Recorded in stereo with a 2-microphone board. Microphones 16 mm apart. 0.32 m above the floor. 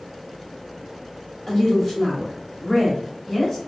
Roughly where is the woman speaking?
Centre.